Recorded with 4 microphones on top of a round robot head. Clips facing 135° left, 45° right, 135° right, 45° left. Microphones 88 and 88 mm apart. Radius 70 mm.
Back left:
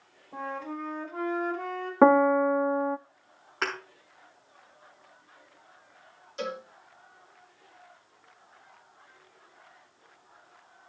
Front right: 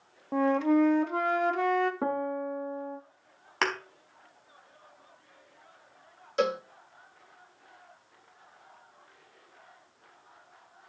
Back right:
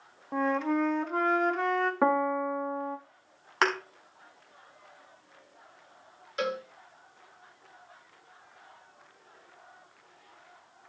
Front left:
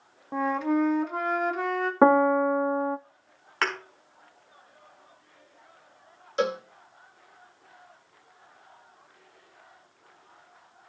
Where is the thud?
65° right, 4 m.